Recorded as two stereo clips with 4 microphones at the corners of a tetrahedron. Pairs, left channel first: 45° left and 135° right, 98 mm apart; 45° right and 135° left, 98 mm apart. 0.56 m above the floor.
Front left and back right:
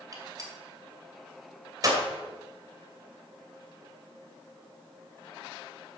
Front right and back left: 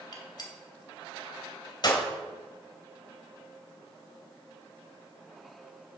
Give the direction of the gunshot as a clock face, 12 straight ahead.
3 o'clock.